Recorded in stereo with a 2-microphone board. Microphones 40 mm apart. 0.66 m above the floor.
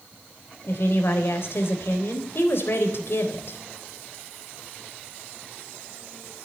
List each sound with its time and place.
0.7 s a woman speaking: 60° left (ahead or behind), 3.5 m